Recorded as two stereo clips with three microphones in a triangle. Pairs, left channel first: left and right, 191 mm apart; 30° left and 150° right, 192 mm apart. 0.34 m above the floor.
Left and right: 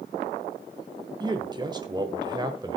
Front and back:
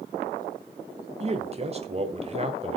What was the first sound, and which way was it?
A man speaking, 140° right.